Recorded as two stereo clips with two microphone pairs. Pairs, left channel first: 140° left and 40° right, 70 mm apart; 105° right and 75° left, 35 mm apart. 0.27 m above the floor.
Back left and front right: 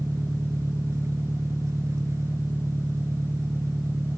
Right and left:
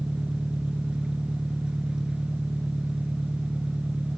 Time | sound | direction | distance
0.0 | an engine running | 5° left | ?